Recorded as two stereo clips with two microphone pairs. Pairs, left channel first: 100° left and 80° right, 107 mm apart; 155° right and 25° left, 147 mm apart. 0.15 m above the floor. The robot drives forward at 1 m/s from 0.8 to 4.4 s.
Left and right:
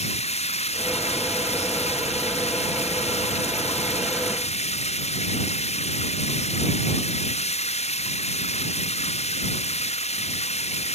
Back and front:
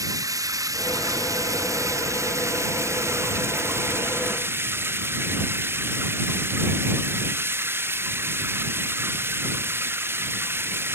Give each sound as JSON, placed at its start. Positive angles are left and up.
{"t": 0.0, "sound": "running water", "azimuth_deg": 90}